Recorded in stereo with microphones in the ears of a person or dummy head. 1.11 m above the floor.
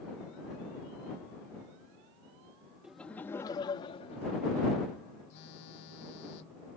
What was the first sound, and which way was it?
Laughter, 5° right (ahead or behind).